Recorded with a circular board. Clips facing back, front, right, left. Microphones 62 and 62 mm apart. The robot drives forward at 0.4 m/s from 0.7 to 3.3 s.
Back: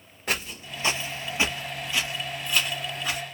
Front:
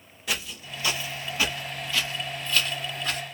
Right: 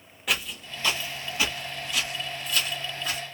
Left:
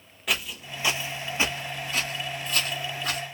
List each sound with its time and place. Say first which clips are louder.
0.3 s footsteps: back 2 dB, even; straight behind, 0.7 m; by 3.2 s 100° left, 1.0 m